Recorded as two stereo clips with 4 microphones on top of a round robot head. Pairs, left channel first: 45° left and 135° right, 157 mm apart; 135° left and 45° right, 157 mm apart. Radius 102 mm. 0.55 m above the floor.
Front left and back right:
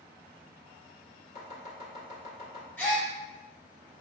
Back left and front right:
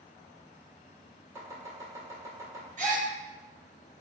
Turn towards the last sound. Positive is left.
turn(degrees=-30)